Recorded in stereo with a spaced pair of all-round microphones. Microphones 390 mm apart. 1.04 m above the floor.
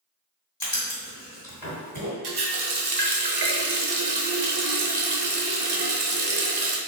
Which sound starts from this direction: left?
Writing, at 0.6 s.